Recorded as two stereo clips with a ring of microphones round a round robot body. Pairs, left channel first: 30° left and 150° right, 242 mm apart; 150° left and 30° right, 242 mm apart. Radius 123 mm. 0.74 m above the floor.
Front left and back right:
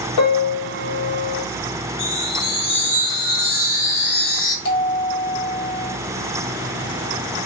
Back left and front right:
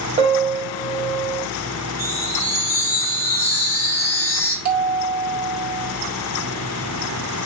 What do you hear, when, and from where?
0.2 s a piano: 30° left, 1.1 m
2.0 s a chime: 70° left, 1.4 m
4.7 s a bell: 10° right, 1.3 m